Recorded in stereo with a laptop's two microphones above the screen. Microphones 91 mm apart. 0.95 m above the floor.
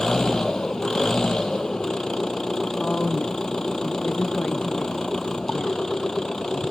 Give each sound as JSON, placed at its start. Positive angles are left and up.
{"t": 0.0, "sound": "an engine running", "side_deg": 10}
{"t": 2.8, "sound": "a woman speaking", "side_deg": 15}